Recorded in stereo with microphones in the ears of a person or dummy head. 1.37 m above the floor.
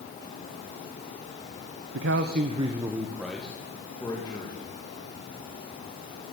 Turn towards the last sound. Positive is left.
turn(degrees=20)  # may be behind; listen again after turning